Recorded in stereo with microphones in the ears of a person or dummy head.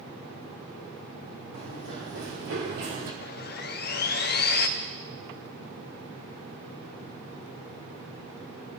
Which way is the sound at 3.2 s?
50° left (ahead or behind).